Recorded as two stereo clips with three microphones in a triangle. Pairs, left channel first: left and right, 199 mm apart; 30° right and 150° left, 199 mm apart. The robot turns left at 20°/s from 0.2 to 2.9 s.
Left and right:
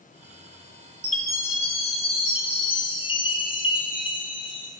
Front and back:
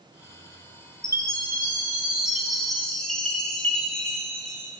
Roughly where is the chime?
Left.